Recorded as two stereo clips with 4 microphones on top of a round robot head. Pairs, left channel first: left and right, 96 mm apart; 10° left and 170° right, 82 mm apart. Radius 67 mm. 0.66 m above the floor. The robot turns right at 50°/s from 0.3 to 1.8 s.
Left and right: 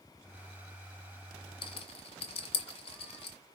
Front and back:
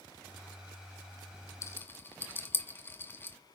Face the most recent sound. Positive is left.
turn(degrees=75)